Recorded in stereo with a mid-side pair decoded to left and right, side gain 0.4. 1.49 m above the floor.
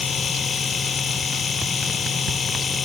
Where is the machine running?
45° left.